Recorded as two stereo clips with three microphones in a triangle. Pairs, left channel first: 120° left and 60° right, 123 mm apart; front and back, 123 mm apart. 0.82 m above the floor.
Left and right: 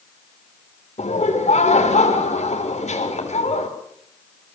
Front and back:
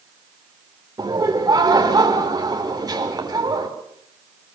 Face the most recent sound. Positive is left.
turn(degrees=125)